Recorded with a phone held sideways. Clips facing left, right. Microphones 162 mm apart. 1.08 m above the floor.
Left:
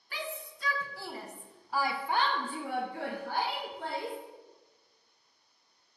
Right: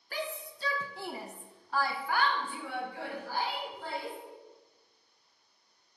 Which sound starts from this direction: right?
A shout, at 0.1 s.